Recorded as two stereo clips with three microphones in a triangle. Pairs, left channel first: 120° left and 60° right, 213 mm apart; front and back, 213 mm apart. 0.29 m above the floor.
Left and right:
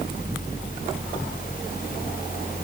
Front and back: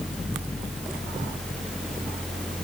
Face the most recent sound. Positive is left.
No sound to turn to.